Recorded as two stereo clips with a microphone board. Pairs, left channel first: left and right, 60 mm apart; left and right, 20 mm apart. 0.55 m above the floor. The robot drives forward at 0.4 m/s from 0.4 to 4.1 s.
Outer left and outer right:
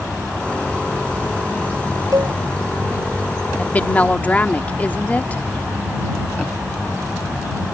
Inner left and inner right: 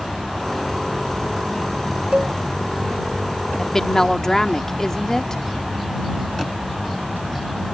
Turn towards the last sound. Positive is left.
turn(degrees=25)  # may be behind; listen again after turning